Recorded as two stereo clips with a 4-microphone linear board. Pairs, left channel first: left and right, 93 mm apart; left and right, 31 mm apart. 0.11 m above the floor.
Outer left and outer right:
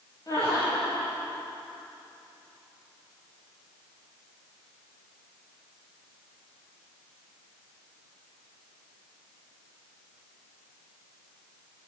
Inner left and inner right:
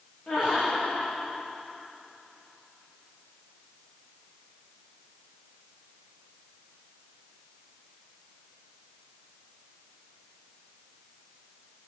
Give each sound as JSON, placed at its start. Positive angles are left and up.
{"t": 0.3, "sound": "laughter", "side_deg": 35, "distance_m": 9.0}